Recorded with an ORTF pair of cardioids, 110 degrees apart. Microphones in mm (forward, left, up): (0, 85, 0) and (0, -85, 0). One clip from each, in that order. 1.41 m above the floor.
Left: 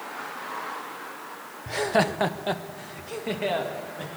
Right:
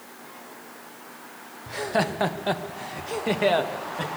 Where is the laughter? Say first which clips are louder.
Left 2 dB; 30° left, 1.1 m; by 4.1 s 40° right, 2.5 m.